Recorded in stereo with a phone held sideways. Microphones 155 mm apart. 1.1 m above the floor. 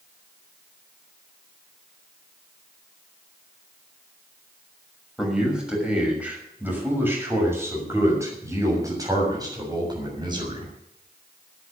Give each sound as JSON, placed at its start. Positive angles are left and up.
{"t": 5.2, "sound": "a man speaking", "side_deg": -5, "distance_m": 6.0}